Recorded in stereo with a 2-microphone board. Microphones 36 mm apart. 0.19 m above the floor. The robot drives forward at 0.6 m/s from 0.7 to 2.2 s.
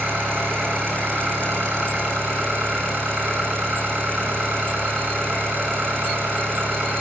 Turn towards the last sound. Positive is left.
turn(degrees=-80)